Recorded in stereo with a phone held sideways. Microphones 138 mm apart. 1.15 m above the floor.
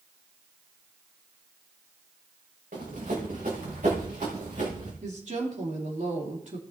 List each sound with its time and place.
2.7 s running footsteps: 75° right (ahead or behind), 5 m; by 4.9 s 60° right (ahead or behind), 5 m
5.0 s a woman speaking: 65° right (ahead or behind), 3 m